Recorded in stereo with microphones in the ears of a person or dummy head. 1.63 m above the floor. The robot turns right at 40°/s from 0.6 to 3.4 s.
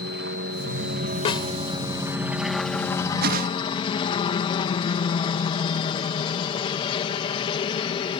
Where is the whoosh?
60° right (ahead or behind); by 3.5 s 50° right (ahead or behind).